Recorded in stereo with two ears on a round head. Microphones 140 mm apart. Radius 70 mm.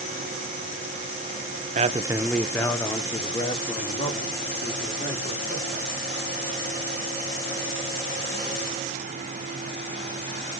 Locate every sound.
1.8 s a man speaking: 45° right (ahead or behind), 0.6 m; by 5.9 s 40° left (ahead or behind), 4 m